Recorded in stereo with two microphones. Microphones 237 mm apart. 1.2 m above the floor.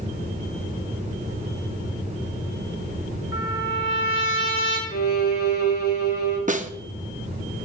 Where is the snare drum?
35° right (ahead or behind), 0.6 m.